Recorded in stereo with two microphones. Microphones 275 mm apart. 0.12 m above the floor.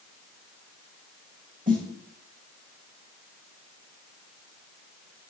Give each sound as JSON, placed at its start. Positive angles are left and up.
{"t": 1.7, "sound": "a snare drum", "side_deg": -30, "distance_m": 2.0}